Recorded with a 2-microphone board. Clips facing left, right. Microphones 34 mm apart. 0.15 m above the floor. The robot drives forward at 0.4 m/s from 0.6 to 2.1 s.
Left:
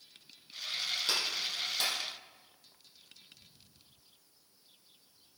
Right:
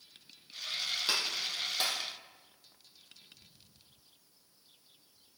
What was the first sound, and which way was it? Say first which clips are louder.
A clap: even; 20° right (ahead or behind).